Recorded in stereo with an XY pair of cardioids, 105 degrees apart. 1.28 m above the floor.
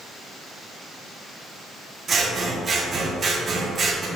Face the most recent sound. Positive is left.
turn(degrees=-40)